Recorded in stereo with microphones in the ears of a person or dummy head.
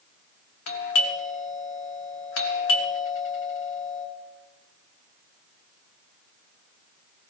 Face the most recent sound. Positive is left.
turn(degrees=75)  # may be behind; listen again after turning